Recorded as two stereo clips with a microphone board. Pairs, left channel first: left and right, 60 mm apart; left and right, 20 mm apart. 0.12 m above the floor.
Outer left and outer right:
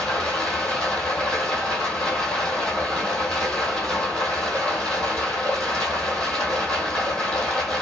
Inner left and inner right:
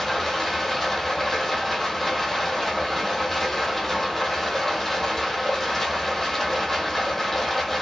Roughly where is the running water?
Centre.